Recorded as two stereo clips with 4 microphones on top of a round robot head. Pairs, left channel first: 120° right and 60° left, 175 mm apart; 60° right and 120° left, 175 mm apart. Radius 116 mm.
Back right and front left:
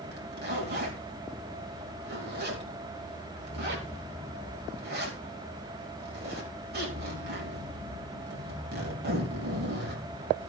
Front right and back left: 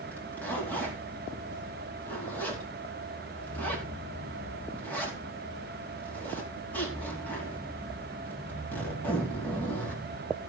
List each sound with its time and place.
0.1 s a zipper: 25° left, 4.5 m